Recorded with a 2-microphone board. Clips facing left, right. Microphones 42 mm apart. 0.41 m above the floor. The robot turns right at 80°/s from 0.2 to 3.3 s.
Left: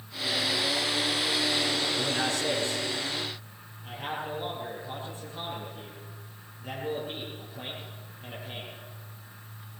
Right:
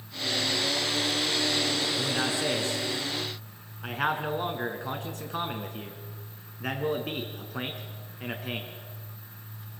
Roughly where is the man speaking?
Centre.